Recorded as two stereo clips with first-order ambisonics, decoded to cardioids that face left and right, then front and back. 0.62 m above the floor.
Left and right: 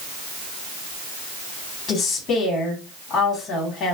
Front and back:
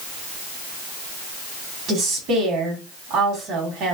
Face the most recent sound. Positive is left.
turn(degrees=150)